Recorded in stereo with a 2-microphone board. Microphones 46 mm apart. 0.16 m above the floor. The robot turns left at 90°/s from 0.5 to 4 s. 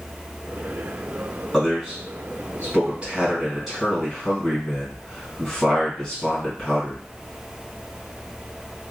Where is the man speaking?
10° left (ahead or behind), 1.7 m.